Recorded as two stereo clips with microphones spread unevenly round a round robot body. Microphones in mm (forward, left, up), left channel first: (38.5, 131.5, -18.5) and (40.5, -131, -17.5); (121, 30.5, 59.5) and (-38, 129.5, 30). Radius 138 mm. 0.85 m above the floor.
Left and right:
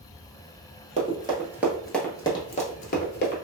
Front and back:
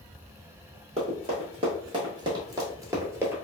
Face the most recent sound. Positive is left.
turn(degrees=65)